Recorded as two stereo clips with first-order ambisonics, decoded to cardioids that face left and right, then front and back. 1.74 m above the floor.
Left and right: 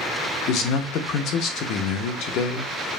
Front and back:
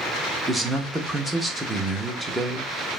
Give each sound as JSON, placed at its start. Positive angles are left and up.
{"t": 0.5, "sound": "a man speaking", "azimuth_deg": 100, "distance_m": 0.9}